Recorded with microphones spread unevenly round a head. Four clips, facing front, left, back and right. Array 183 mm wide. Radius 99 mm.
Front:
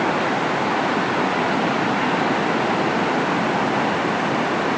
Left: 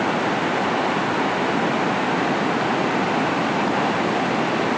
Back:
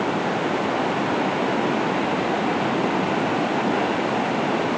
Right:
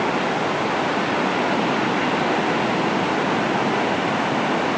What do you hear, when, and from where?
Only background noise.